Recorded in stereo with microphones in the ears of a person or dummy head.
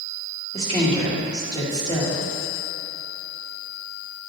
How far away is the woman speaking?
About 2 m.